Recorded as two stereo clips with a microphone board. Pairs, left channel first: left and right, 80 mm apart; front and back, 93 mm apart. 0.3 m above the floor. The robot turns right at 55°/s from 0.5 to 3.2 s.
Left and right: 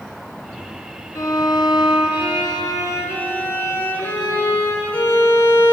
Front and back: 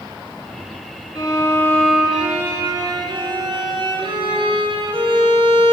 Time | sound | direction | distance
1.1 | a violin | 45° left | 1.2 m